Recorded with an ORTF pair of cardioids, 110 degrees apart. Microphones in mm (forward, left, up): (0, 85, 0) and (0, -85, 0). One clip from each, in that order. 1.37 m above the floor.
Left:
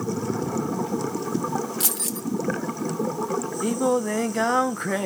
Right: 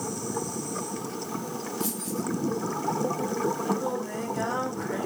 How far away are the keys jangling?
About 0.8 m.